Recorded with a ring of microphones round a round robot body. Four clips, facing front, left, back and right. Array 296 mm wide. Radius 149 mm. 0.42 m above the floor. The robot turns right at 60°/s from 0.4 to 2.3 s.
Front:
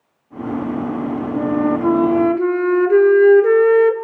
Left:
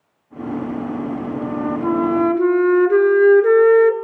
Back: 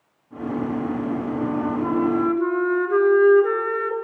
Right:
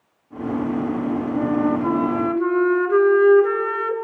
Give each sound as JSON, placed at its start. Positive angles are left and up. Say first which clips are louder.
{"t": 1.4, "sound": "a flute", "louder": "right 4 dB, front 9 dB", "azimuth_deg": -15, "distance_m": 0.6}